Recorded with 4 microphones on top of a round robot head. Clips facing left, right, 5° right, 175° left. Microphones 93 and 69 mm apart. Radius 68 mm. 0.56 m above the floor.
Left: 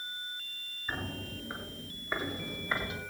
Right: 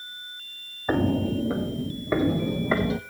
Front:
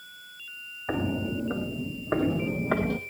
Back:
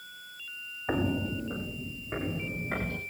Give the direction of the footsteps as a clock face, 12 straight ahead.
3 o'clock.